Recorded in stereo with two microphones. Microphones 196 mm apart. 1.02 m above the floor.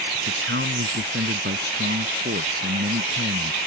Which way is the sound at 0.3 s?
70° right (ahead or behind).